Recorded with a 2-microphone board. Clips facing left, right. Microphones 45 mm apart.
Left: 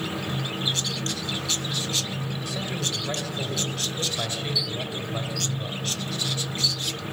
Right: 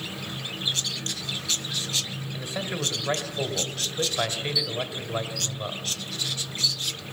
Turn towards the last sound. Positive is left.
turn(degrees=-25)  # may be behind; listen again after turning